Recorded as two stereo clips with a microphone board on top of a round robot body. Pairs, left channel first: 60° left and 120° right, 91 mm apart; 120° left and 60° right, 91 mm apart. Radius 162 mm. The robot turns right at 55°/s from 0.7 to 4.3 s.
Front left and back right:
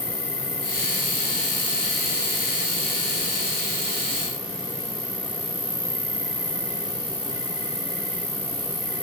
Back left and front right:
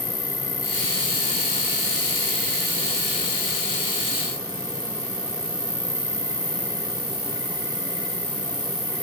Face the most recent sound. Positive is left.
turn(degrees=-80)